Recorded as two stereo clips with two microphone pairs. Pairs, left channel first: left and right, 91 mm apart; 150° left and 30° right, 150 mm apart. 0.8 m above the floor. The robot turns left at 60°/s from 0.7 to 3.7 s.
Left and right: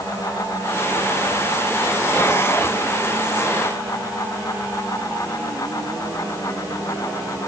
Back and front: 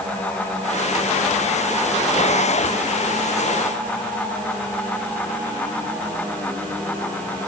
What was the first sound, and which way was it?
Only background noise.